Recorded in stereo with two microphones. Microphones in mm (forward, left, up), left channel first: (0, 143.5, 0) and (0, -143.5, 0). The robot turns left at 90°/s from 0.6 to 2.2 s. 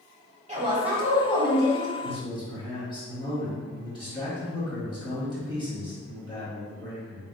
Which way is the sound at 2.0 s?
25° left (ahead or behind).